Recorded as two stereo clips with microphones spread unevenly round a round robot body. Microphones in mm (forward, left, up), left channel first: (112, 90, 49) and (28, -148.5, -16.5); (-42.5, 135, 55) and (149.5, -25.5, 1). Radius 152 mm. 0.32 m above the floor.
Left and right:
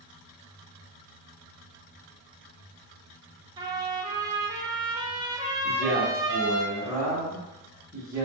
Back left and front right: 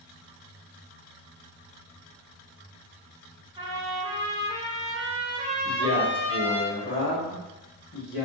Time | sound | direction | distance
3.6 | a trumpet | 75° right | 0.6 m
5.6 | a man speaking | 170° right | 1.2 m